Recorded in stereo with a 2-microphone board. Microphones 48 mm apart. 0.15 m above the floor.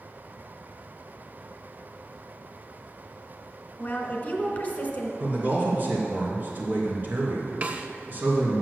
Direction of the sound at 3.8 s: 30° left (ahead or behind).